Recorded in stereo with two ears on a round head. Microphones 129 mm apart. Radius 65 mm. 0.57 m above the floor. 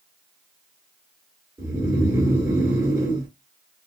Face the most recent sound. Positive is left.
turn(degrees=-20)  # may be behind; listen again after turning